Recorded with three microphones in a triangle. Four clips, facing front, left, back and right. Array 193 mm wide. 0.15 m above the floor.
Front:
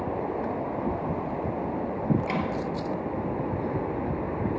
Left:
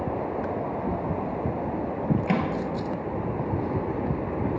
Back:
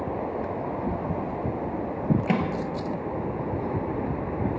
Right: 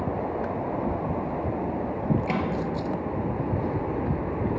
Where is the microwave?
155° left, 2 m.